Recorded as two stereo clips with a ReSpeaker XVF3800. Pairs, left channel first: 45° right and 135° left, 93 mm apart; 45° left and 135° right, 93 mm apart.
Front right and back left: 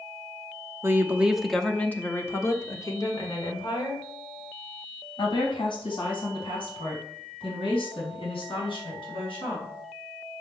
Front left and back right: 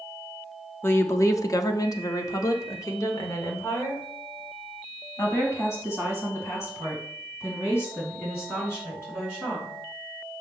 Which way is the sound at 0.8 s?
95° left.